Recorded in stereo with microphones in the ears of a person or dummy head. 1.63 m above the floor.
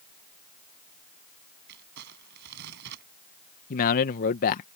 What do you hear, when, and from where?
1.7 s crumpling: 60° right (ahead or behind)
3.7 s a man speaking: 50° left (ahead or behind)